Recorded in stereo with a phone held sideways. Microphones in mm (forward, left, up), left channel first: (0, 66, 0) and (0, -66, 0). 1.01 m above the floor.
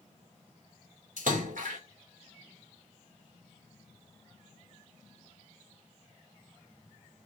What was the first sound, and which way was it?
A splash, 70° right (ahead or behind).